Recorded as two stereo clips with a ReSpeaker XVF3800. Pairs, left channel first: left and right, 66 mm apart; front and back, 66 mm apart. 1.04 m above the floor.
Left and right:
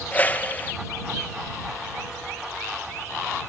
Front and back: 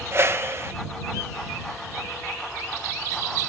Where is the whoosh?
145° left.